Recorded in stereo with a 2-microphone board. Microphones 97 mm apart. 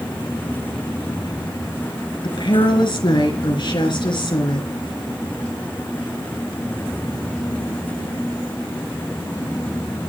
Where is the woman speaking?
55° left (ahead or behind), 4 m.